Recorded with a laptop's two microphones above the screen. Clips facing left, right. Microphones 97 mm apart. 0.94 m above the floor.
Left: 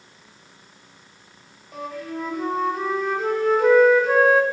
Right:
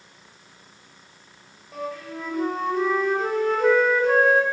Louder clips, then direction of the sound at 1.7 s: Left 1 dB; centre (ahead or behind).